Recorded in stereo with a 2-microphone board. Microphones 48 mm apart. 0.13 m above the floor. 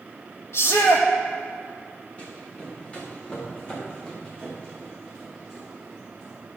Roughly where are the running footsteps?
Left.